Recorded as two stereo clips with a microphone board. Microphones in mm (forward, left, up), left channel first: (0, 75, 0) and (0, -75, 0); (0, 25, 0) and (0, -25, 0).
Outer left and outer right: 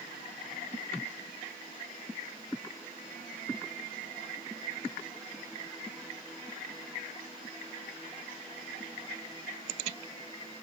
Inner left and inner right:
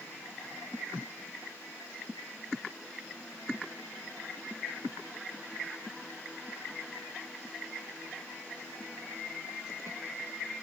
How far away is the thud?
I don't hear a thud.